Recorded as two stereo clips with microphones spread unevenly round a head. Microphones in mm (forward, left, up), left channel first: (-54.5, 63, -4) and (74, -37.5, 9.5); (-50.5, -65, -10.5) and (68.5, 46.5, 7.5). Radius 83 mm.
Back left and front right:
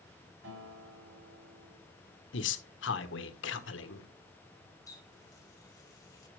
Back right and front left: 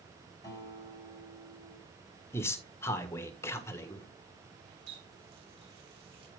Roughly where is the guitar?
Ahead right.